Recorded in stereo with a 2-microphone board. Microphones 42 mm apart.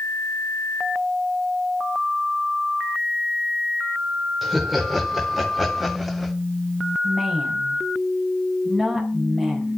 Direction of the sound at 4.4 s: 5° right (ahead or behind).